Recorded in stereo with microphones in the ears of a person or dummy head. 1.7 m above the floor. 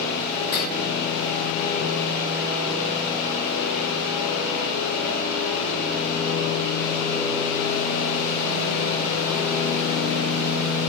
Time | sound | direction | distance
0.5 | cutlery clinking | 40° left (ahead or behind) | 1.2 m